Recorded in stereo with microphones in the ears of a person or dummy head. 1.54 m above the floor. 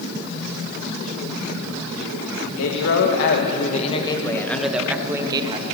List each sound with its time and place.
2.6 s a man speaking: 80° left, 2.5 m; by 5.7 s 20° right (ahead or behind), 2.5 m